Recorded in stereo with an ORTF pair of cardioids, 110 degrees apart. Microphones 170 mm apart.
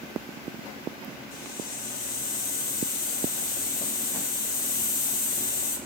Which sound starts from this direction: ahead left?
A hiss, at 1.3 s.